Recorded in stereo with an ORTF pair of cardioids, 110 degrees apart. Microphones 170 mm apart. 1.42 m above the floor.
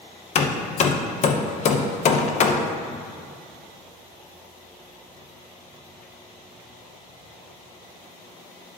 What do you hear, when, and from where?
0.3 s hammering: 45° left, 0.9 m